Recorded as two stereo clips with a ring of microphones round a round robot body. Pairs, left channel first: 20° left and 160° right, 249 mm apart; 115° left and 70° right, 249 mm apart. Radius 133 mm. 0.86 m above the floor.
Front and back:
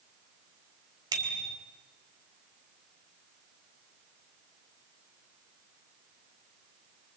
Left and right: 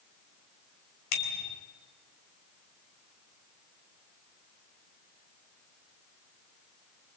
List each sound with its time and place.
1.1 s a bicycle bell: 130° left, 3.5 m